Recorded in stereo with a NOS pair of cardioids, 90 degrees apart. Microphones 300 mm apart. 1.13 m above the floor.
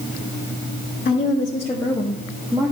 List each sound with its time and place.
1.1 s a woman speaking: 35° left, 1.9 m; by 2.7 s 10° right, 1.7 m